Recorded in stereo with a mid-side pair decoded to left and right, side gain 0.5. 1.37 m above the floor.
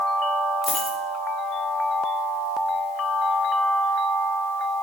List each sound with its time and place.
0.6 s a dropped coin: 25° left, 2.5 m